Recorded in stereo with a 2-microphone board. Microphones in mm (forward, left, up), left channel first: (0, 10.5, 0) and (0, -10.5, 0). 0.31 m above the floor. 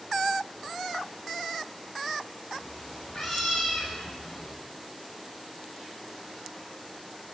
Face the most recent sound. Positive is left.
turn(degrees=40)  # may be behind; listen again after turning